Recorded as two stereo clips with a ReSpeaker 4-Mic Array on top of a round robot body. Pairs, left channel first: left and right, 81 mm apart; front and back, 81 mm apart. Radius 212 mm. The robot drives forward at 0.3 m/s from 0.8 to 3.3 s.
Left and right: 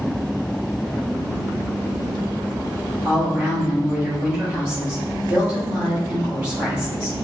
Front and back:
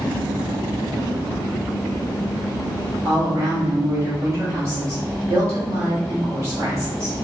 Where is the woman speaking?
155° right, 1.8 m.